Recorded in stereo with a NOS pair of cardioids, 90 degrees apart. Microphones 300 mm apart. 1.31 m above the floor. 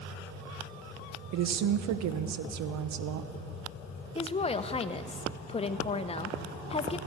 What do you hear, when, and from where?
1.3 s a woman speaking: 65° right, 0.9 m
4.2 s a woman speaking: 20° left, 0.8 m